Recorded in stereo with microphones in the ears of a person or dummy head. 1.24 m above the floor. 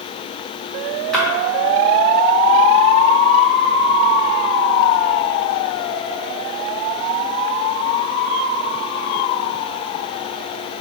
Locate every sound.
1.1 s a splash: centre (ahead or behind), 0.7 m